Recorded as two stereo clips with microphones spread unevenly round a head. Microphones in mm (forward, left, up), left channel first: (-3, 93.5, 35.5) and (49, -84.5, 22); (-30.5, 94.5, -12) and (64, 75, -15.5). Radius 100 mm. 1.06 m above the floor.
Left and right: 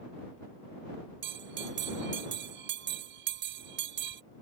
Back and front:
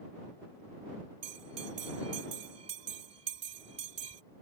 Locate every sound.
1.2 s a bell: 45° right